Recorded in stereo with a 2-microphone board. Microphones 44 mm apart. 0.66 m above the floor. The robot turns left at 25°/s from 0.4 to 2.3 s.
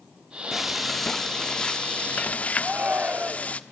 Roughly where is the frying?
Behind.